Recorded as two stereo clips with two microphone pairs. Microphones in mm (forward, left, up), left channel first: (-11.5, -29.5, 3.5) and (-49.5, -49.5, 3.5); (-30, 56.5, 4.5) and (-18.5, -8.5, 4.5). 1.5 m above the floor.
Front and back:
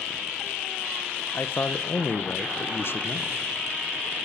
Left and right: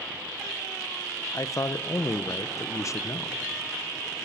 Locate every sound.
1.3 s a man speaking: 65° left, 0.8 m